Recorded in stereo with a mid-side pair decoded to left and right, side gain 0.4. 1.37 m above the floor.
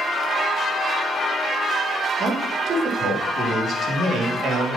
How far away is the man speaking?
About 2.5 m.